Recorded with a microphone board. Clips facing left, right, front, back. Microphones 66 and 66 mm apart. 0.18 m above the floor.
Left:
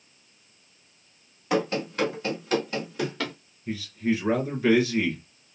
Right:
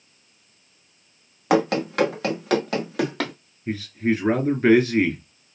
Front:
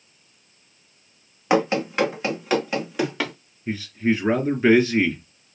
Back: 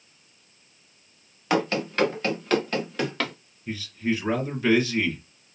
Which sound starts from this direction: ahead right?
A man speaking, at 3.7 s.